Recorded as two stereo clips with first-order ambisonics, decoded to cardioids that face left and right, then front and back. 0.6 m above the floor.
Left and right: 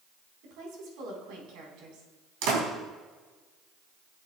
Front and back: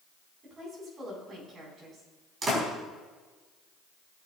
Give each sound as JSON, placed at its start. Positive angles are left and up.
{"t": 0.4, "sound": "a woman speaking", "azimuth_deg": -110, "distance_m": 4.5}
{"t": 2.4, "sound": "a door slam", "azimuth_deg": -110, "distance_m": 3.5}